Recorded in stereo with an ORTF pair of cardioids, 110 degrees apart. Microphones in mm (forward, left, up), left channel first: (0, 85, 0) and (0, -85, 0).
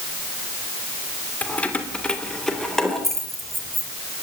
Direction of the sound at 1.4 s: 10° left.